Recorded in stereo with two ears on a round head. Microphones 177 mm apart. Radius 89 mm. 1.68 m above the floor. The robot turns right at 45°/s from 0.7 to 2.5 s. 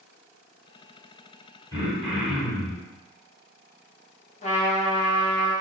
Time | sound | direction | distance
1.7 | throat clearing | 165° left | 2.0 m
4.4 | a trumpet | 35° left (ahead or behind) | 1.3 m